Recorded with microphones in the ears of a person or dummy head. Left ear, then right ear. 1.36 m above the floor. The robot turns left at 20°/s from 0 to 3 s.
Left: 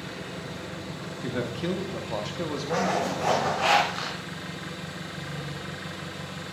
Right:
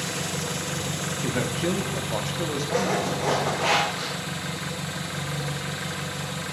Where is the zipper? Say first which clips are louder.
Even; 45° left (ahead or behind), 5.5 m; by 4.2 s 50° left (ahead or behind), 5.5 m.